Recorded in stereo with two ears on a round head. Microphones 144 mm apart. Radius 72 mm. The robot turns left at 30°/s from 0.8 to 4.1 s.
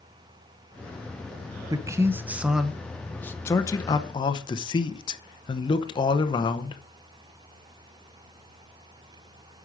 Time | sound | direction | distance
1.7 | a man speaking | 150° right | 0.8 m